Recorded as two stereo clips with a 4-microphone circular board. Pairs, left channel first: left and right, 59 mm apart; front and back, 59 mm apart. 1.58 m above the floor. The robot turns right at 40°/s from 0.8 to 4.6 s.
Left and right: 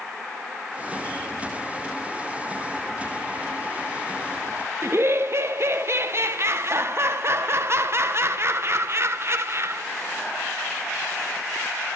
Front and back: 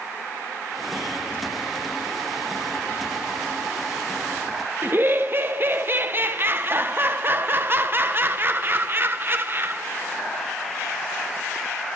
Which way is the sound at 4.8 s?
130° right.